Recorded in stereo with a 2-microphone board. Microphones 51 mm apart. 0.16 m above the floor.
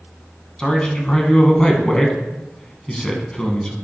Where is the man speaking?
20° left (ahead or behind), 1.2 m.